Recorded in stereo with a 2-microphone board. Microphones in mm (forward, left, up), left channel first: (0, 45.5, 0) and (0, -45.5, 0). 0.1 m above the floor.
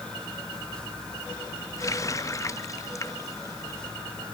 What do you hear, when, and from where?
1.8 s a running tap: 35° left (ahead or behind)